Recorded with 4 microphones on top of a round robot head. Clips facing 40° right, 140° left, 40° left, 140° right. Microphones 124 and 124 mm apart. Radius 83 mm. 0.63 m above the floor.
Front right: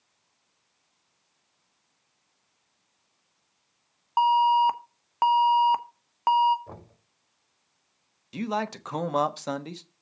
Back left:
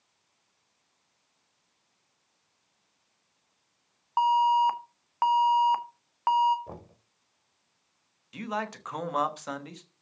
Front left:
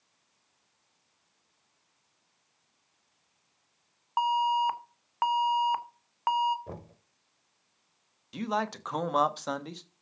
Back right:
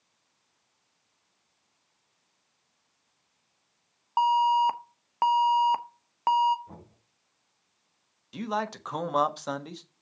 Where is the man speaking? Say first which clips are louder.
Front right 4 dB, even; 50° right, 1.2 m.